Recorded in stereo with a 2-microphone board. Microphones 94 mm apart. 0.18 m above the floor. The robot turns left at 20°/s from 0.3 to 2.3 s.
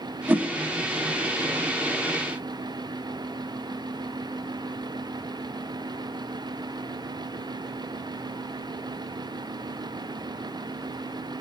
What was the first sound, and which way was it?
A whoosh, 20° right (ahead or behind).